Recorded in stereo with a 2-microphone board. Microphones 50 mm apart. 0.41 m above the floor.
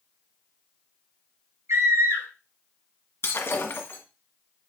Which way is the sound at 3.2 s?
50° left (ahead or behind).